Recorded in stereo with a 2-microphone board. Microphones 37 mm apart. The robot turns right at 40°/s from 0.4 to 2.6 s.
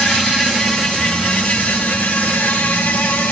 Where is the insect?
10° right, 4.5 m; by 3.3 s 80° left, 4.5 m.